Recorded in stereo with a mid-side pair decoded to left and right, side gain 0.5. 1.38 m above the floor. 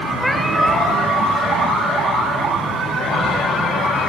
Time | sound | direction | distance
0.2 | a cat meowing | straight ahead | 2 m